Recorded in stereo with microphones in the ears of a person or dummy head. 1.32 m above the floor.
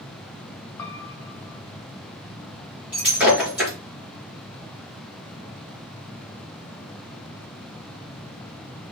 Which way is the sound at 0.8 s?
20° left (ahead or behind).